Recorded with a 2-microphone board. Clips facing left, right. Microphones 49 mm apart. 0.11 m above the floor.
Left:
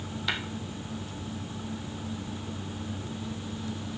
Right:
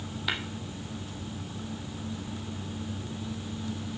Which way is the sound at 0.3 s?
5° right (ahead or behind).